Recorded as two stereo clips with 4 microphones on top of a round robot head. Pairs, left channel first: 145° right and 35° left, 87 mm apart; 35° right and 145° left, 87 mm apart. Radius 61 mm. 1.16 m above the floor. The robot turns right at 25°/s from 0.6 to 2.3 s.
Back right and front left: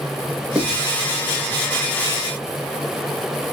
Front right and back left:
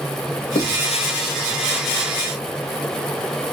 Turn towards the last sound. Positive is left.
turn(degrees=0)